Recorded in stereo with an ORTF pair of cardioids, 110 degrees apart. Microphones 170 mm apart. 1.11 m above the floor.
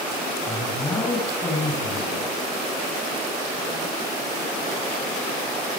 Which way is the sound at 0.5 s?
25° left.